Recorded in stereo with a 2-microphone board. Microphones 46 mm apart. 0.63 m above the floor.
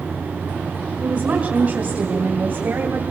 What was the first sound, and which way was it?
A woman speaking, 35° right (ahead or behind).